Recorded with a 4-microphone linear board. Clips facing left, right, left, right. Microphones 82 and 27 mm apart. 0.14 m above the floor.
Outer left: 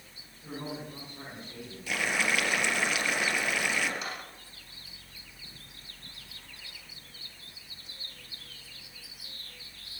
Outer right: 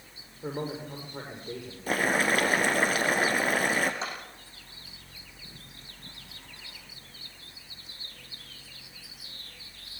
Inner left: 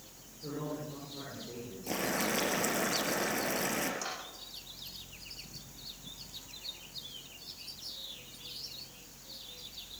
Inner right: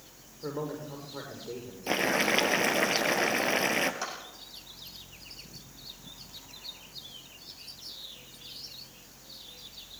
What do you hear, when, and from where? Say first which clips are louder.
0.4 s a man speaking: outer right 5 dB, inner right 3 dB; 60° right (ahead or behind), 8.5 m
1.9 s boiling: outer right 5 dB, inner right 7 dB; 40° right (ahead or behind), 2 m
4.0 s a clap: outer right 3 dB, inner right 3 dB; 30° right (ahead or behind), 6.5 m